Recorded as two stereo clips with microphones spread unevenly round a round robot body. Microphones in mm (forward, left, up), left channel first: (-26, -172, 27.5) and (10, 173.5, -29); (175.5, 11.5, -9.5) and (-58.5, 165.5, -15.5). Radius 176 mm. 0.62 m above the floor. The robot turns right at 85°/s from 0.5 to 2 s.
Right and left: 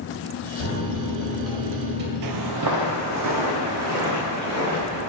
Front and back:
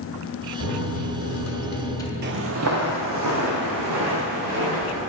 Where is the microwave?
75° right, 1.9 m; by 2.1 s 45° left, 1.9 m.